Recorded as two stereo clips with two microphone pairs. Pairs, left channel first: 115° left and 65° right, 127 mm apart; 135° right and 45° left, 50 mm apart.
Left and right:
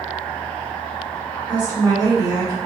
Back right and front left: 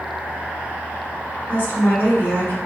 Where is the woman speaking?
115° right, 1.8 m.